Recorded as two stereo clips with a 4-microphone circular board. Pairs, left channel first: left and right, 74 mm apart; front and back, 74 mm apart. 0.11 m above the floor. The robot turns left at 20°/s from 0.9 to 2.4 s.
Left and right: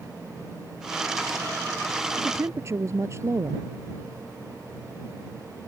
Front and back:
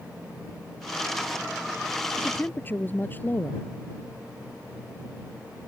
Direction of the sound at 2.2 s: 50° right.